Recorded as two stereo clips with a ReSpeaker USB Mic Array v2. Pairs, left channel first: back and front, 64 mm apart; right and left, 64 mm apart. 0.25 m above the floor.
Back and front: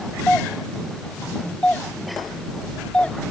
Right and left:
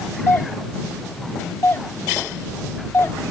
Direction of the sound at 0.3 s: 115° right.